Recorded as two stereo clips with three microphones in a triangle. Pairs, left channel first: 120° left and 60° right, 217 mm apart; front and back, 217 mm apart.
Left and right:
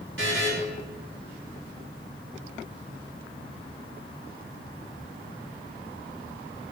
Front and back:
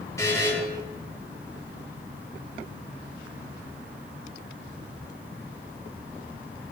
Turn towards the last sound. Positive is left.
turn(degrees=-75)